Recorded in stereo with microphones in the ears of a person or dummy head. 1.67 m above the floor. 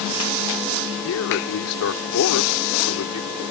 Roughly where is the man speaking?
Left.